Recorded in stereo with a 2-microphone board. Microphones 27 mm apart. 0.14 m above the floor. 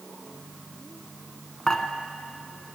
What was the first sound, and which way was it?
Dishes clattering, 20° left (ahead or behind).